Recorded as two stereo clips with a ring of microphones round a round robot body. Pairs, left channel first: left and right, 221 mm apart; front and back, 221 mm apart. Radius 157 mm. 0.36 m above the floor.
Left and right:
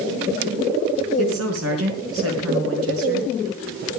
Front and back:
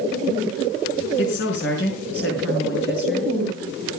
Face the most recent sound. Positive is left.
turn(degrees=-55)